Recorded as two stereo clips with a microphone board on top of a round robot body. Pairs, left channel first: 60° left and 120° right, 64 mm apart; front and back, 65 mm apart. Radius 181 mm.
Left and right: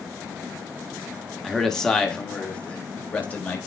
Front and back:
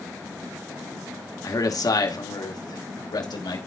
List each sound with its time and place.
1.4 s a man speaking: 30° right, 1.9 m; by 3.6 s 10° right, 3.5 m